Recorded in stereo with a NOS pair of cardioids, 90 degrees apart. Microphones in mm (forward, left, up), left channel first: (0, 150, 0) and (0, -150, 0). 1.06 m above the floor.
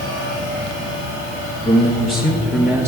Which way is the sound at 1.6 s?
30° left.